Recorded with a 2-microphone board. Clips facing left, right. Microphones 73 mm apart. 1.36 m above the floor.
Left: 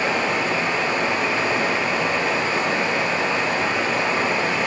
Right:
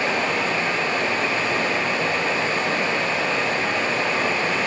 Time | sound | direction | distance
0.0 | running water | 25° left (ahead or behind) | 2.5 m